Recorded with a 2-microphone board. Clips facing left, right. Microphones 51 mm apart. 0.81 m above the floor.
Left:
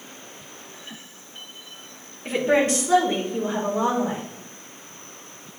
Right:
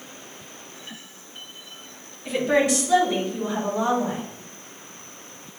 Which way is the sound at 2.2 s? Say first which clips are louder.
Left 1 dB; 40° left (ahead or behind).